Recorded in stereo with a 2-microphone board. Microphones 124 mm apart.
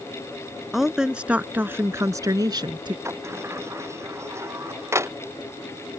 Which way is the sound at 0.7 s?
Centre (ahead or behind).